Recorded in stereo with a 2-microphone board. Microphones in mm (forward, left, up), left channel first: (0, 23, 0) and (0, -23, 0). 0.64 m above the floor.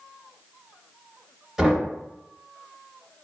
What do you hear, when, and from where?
1.6 s knocking: 10° right (ahead or behind), 0.8 m